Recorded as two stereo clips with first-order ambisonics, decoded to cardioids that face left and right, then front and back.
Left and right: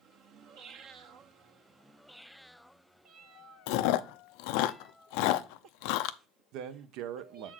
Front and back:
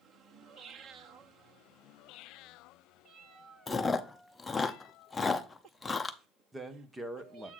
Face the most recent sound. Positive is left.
turn(degrees=-100)